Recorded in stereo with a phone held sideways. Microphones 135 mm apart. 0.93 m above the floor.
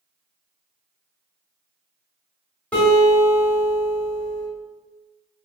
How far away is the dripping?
No dripping in this recording.